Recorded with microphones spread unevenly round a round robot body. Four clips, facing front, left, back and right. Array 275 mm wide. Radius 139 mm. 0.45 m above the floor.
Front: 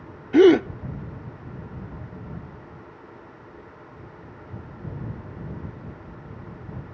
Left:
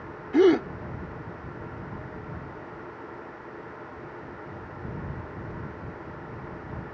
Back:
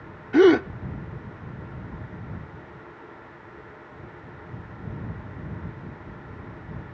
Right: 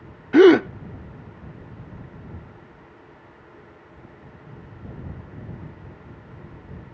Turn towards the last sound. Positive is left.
turn(degrees=-70)